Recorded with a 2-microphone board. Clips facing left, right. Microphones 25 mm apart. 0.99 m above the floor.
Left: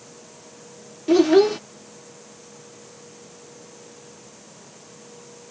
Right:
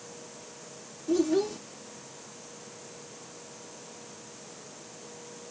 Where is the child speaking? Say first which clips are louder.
Left 11 dB; 60° left (ahead or behind).